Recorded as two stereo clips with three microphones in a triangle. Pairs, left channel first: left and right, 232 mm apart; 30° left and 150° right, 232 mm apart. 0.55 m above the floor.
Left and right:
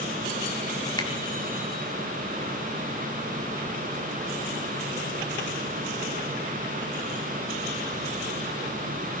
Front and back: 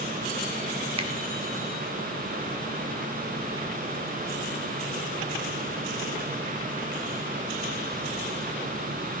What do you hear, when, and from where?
1.0 s a finger snap: 155° left, 1.4 m